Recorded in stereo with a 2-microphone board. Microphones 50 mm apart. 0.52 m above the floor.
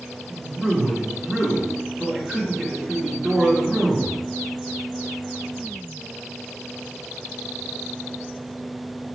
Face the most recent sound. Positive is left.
turn(degrees=-10)  # may be behind; listen again after turning